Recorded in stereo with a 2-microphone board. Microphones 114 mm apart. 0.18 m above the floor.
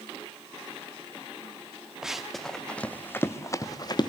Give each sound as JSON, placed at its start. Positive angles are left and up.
{"t": 2.0, "sound": "running footsteps", "side_deg": -5, "distance_m": 1.7}